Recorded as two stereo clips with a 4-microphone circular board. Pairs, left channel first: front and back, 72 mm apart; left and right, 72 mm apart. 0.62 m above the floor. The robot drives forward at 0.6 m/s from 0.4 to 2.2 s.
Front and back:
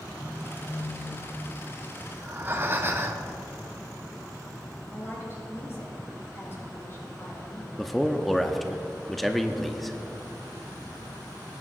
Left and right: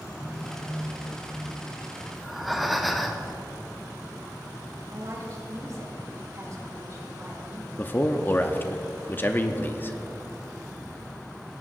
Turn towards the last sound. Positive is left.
turn(degrees=90)